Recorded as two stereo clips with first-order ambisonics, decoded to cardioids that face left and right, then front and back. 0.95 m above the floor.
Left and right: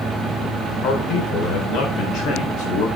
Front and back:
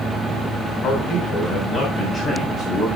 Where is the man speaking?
50° left, 2.5 m; by 2.9 s 70° left, 3 m.